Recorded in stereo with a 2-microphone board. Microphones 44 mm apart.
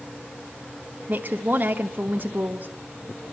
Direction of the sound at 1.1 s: 45° right (ahead or behind).